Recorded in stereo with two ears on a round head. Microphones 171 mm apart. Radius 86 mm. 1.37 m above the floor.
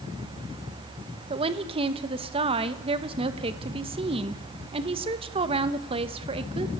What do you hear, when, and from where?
1.3 s a woman speaking: 30° right (ahead or behind), 1.8 m